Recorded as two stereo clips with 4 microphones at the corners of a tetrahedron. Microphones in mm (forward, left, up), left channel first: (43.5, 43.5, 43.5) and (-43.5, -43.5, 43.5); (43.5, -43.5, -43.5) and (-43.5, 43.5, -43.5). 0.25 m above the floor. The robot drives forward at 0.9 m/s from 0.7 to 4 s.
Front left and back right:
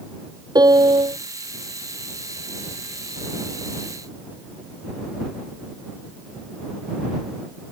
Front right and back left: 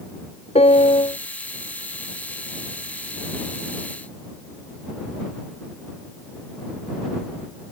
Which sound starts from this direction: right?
A piano, at 0.6 s.